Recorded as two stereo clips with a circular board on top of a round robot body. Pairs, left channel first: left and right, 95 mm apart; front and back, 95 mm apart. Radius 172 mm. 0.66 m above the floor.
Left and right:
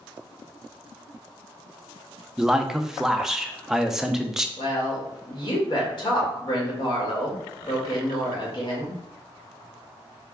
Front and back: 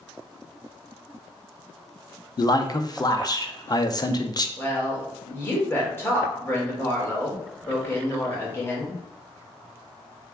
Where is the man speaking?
5° right, 0.6 m.